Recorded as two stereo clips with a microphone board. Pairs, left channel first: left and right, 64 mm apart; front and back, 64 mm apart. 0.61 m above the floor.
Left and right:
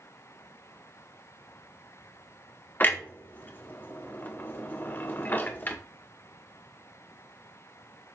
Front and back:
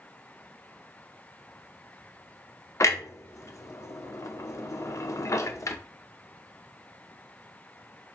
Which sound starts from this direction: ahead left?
A clunk, at 2.8 s.